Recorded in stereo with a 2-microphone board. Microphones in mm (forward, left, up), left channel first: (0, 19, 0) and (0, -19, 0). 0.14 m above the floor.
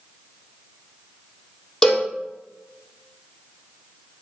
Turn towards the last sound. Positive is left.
turn(degrees=15)  # may be behind; listen again after turning